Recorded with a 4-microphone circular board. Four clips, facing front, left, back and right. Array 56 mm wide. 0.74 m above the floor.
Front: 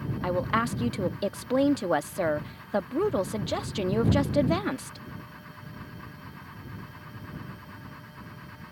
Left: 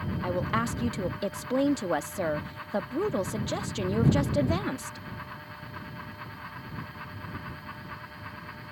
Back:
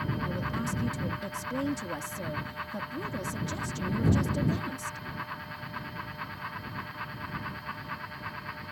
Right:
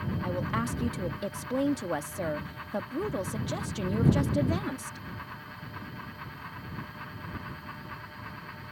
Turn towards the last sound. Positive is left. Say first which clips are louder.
# left 4 dB, front 6 dB
turn(degrees=15)